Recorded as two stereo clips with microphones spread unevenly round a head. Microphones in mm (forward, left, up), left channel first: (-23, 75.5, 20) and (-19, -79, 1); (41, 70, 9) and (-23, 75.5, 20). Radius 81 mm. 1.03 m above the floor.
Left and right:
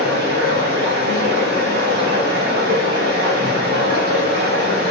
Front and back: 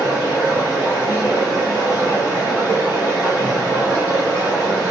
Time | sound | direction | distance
0.0 | running water | 105° right | 1.1 m